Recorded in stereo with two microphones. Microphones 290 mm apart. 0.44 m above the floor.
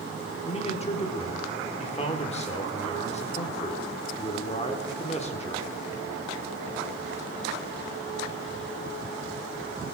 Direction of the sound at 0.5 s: 25° left (ahead or behind).